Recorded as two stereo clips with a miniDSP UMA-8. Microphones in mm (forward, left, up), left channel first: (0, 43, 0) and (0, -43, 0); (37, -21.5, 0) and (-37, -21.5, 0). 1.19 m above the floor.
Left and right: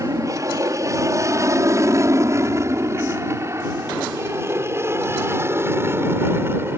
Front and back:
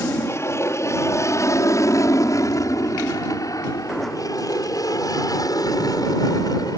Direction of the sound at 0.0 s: 45° right.